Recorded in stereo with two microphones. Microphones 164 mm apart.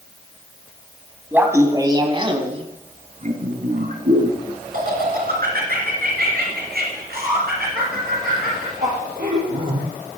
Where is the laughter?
10° right (ahead or behind), 1.4 m; by 9.8 s 75° right (ahead or behind), 5.5 m.